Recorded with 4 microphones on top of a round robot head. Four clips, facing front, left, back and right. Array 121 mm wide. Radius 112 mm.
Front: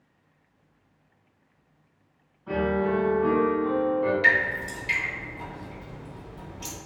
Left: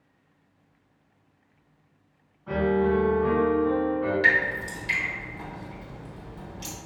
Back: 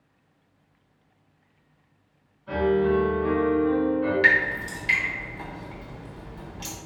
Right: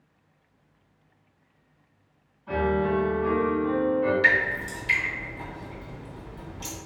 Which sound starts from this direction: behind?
Dripping, at 4.2 s.